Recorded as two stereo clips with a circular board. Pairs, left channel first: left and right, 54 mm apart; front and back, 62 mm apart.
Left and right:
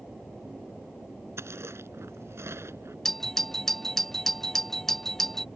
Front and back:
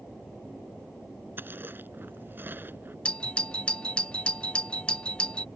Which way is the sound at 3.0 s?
20° left.